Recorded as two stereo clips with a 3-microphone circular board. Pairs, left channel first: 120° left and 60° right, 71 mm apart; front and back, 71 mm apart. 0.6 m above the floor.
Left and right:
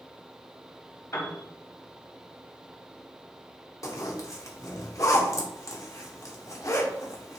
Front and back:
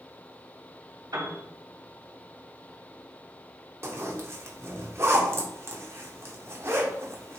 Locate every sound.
1.1 s a piano: 155° left, 3 m
3.8 s a zipper: 140° left, 1.5 m